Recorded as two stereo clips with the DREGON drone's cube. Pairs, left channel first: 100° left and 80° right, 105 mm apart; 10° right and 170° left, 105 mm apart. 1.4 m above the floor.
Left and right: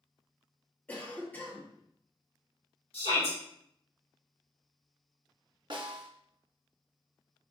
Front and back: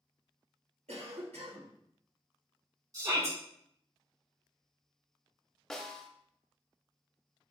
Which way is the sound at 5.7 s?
95° right.